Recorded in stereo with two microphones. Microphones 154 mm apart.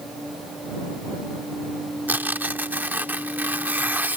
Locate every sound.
2.1 s tearing paper: 10° right (ahead or behind)